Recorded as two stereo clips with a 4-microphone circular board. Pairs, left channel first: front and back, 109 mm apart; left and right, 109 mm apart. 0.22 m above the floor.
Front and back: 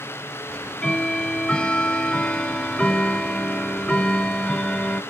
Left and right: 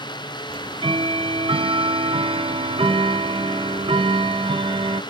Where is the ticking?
80° right, 0.7 m.